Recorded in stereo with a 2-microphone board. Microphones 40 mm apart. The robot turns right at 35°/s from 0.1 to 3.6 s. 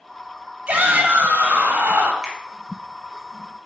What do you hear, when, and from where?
0.7 s a shout: 145° right, 2.5 m; by 2.1 s 95° right, 2.5 m
2.2 s a finger snap: 20° right (ahead or behind), 2.5 m; by 2.4 s 25° right (ahead or behind), 2.5 m